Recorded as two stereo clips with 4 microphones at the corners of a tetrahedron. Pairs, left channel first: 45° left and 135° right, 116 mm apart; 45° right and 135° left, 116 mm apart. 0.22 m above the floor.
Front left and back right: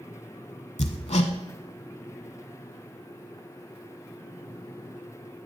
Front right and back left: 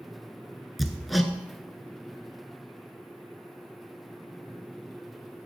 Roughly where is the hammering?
Ahead left.